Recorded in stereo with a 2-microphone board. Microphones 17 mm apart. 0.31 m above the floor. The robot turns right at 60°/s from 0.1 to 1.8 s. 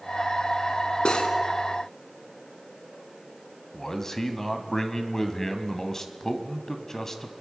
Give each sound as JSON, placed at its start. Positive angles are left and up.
{"t": 1.1, "sound": "cutlery clinking", "side_deg": 65, "distance_m": 2.0}
{"t": 3.7, "sound": "a man speaking", "side_deg": 25, "distance_m": 2.0}